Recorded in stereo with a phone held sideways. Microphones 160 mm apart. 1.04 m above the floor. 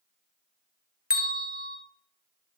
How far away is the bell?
About 0.6 m.